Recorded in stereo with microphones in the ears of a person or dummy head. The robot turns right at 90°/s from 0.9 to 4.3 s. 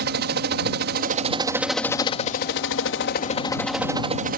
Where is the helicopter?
75° right; by 4.4 s 130° right.